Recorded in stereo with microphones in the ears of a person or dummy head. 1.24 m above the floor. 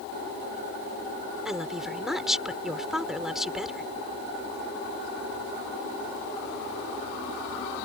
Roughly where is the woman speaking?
Centre.